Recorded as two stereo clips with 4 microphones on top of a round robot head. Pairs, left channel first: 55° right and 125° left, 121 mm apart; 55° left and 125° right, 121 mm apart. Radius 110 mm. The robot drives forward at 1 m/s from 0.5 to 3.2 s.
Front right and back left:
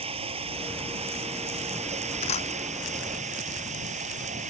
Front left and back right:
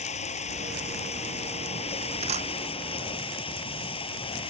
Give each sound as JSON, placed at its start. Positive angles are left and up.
{"t": 0.0, "sound": "running water", "azimuth_deg": 85}
{"t": 2.2, "sound": "a camera shutter", "azimuth_deg": -90}